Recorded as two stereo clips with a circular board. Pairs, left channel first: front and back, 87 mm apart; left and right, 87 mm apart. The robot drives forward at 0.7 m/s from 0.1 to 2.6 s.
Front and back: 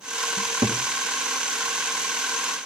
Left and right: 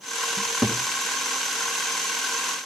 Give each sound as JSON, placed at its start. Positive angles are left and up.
{"t": 0.4, "sound": "a cupboard door", "azimuth_deg": -170, "distance_m": 1.0}